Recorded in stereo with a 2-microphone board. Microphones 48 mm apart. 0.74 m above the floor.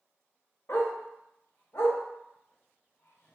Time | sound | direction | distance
0.7 | a dog barking | 60° left (ahead or behind) | 0.6 m